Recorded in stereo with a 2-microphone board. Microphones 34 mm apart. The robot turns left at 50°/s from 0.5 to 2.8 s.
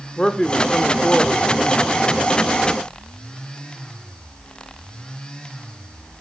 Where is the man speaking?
25° left (ahead or behind), 0.9 m; by 2.0 s 20° left (ahead or behind), 0.9 m.